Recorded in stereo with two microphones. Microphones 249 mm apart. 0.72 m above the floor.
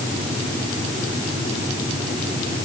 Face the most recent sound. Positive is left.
No sound to turn to.